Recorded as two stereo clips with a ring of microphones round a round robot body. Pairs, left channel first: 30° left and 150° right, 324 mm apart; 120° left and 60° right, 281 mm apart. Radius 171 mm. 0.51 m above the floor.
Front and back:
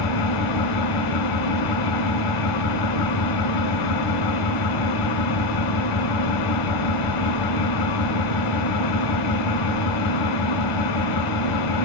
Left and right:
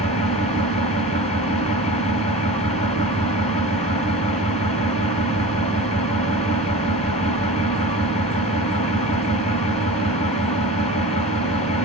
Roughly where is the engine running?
Ahead left.